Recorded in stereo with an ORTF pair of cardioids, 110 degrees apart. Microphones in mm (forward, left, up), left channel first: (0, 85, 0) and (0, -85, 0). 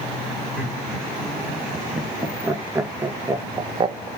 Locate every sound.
0.6 s laughter: 10° right, 3 m; by 4.1 s 35° right, 0.8 m